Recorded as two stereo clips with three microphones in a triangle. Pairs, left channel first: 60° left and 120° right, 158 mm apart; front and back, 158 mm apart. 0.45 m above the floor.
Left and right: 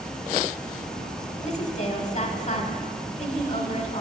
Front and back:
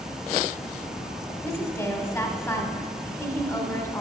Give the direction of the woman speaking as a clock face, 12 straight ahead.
10 o'clock.